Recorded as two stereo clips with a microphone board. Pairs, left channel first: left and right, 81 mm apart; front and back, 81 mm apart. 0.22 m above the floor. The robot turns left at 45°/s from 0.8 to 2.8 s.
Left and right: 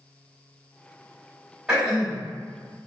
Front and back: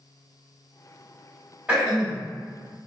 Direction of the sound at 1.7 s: 140° right.